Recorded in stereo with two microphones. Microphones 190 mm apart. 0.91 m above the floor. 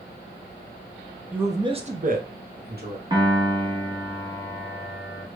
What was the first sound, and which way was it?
A man speaking, 5° right (ahead or behind).